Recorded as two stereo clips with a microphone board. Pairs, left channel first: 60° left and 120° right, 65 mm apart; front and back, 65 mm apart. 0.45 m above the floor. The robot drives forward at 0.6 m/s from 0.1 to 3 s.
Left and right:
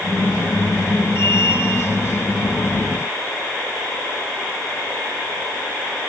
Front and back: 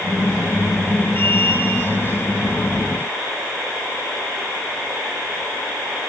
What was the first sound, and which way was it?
Only background noise.